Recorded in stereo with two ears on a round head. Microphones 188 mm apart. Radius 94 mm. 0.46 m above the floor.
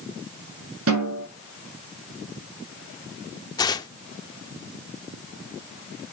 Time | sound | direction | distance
0.9 | a snare drum | 75° right (ahead or behind) | 6.5 m
3.6 | tearing paper | 20° left (ahead or behind) | 0.8 m